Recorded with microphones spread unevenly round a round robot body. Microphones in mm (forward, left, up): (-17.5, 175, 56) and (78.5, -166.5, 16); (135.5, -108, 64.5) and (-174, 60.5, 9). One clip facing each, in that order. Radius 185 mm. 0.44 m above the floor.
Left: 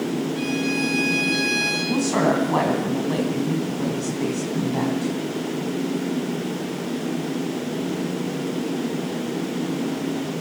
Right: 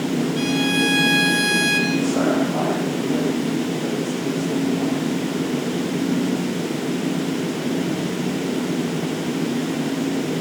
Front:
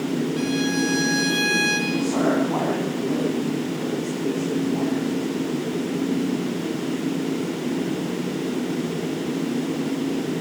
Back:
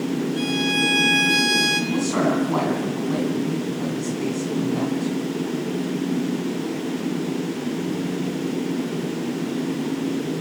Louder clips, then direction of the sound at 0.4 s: Right 3 dB, front 1 dB; 140° right.